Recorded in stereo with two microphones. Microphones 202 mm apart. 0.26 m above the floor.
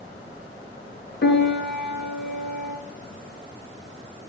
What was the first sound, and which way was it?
A piano, 55° left (ahead or behind).